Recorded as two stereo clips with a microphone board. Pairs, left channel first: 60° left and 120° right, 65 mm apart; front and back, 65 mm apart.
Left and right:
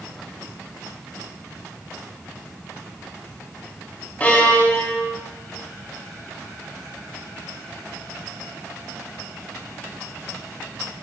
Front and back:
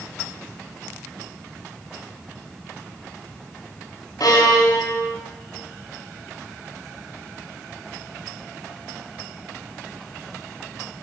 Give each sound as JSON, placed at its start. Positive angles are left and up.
{"t": 4.2, "sound": "a violin", "azimuth_deg": -5, "distance_m": 4.0}